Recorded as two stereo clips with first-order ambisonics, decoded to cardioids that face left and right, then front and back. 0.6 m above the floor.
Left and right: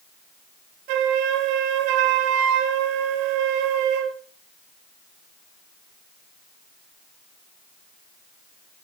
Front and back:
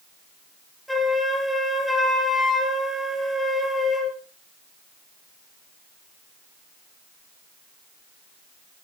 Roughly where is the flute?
Right.